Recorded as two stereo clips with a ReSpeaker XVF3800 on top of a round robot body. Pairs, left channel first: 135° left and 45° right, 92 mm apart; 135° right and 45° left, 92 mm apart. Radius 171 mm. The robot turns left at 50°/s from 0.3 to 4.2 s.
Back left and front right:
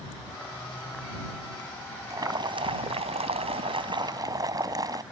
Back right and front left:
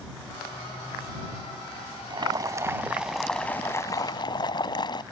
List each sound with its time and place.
2.1 s boiling: 10° left; by 5.0 s 95° right